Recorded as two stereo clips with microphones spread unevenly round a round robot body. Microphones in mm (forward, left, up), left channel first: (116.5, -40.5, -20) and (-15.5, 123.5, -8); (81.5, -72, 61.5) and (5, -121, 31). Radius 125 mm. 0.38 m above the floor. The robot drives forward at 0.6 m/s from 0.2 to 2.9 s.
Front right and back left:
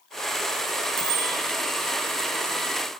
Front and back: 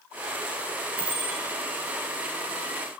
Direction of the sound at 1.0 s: 140° left.